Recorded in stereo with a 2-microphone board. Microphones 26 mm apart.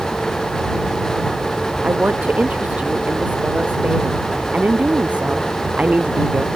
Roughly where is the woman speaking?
Right.